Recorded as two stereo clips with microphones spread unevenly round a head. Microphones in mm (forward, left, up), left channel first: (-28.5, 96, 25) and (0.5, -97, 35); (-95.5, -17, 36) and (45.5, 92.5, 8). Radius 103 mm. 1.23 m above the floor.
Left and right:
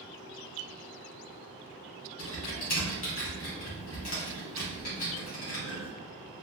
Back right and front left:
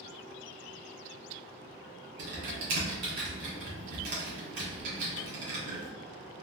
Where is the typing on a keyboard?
50° left, 1.9 m.